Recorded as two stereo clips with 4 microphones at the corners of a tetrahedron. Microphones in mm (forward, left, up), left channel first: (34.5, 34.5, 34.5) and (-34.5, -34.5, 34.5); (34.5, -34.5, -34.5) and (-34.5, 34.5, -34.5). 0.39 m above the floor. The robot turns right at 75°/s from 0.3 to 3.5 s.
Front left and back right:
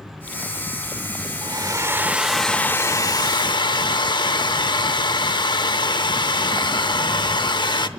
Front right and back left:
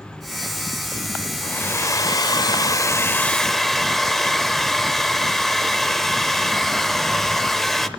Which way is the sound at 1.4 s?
115° right.